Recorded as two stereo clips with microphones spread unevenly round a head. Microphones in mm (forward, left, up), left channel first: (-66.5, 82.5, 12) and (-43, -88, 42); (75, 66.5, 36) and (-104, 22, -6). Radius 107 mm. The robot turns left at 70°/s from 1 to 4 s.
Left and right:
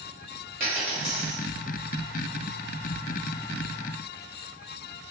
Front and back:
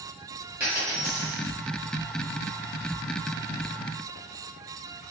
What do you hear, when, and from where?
0.6 s a dropped coin: 60° right, 1.1 m; by 1.4 s 90° right, 1.1 m